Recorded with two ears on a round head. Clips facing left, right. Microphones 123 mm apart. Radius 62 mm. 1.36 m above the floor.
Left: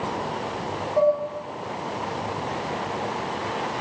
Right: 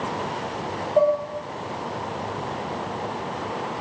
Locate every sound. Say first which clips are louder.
1.0 s dishes clattering: right 1 dB; 40° right (ahead or behind), 4 m